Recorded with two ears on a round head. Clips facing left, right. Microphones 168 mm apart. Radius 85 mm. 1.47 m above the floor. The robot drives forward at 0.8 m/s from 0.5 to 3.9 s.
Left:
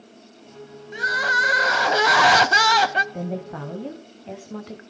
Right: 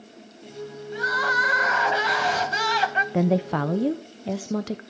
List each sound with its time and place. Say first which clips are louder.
0.9 s crying: even; 20° left (ahead or behind), 1.3 m; by 3.0 s 40° left (ahead or behind), 0.7 m
3.1 s a woman speaking: right 8 dB; 65° right (ahead or behind), 0.5 m; by 4.8 s 50° right (ahead or behind), 0.6 m